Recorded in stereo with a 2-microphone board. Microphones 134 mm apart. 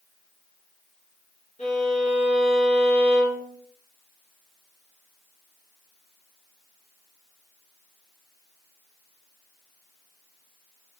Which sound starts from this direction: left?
A violin, at 1.6 s.